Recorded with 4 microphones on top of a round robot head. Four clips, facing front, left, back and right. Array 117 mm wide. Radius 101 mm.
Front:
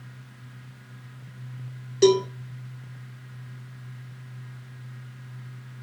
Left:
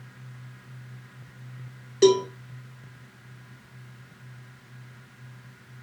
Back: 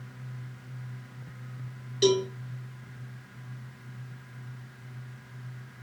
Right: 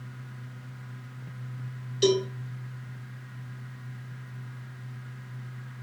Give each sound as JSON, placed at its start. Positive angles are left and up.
{"t": 2.0, "sound": "a cowbell", "azimuth_deg": 55, "distance_m": 1.9}